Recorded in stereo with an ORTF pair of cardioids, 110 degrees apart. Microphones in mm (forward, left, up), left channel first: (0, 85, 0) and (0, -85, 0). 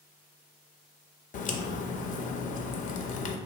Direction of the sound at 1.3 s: 50° left.